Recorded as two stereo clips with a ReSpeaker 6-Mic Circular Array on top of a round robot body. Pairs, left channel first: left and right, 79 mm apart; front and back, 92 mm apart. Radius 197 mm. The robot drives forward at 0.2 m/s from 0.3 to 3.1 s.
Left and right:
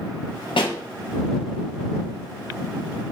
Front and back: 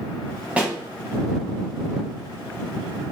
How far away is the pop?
About 0.5 m.